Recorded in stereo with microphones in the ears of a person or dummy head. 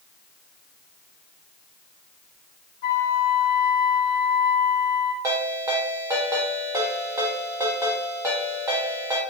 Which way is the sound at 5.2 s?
15° right (ahead or behind).